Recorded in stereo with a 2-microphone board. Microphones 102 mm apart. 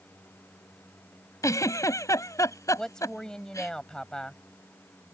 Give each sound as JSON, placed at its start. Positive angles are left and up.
{"t": 1.4, "sound": "a giggle", "side_deg": 30}
{"t": 2.8, "sound": "a woman speaking", "side_deg": 5}